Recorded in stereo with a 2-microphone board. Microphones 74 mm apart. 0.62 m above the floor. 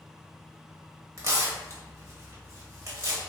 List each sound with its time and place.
1.2 s tearing paper: 45° right (ahead or behind), 0.9 m